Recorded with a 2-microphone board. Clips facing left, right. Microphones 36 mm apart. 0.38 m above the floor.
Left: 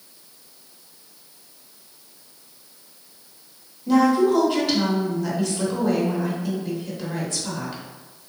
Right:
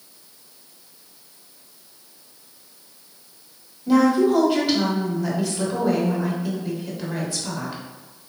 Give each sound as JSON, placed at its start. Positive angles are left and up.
{"t": 3.9, "sound": "a woman speaking", "side_deg": -5, "distance_m": 1.0}